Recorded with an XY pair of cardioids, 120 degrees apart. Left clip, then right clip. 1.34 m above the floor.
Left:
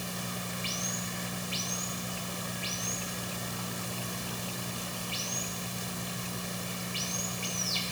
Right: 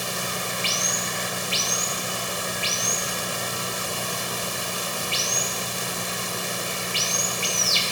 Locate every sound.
0.0 s running water: 60° right